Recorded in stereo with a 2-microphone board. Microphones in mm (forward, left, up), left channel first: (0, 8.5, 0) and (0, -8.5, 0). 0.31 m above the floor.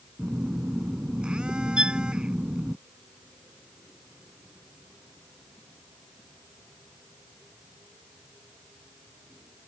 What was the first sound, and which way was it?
A phone buzzing, 65° right (ahead or behind).